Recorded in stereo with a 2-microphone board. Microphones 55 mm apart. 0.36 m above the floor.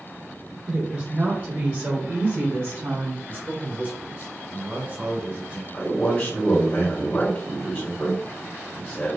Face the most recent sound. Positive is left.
turn(degrees=20)  # may be behind; listen again after turning